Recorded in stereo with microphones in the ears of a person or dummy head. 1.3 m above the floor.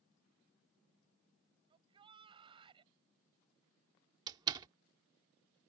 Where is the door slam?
20° right (ahead or behind).